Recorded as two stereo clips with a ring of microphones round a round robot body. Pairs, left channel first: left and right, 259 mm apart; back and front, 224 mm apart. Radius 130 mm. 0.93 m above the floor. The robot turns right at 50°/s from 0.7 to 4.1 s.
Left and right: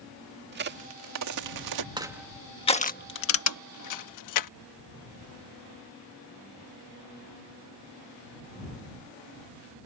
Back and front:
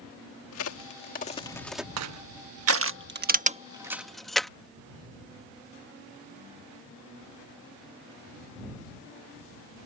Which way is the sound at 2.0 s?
15° right.